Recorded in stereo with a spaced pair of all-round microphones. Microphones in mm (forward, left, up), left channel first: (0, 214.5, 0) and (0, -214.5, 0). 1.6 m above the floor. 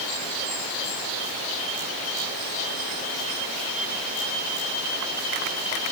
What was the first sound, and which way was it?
Only background noise.